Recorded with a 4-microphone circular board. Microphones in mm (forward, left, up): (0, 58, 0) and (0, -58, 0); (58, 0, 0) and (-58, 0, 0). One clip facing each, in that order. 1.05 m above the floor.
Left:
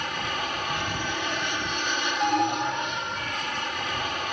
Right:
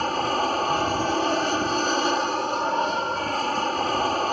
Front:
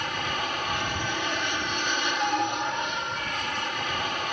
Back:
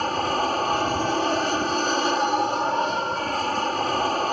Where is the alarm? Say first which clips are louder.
Left 1 dB, back 4 dB; 100° left.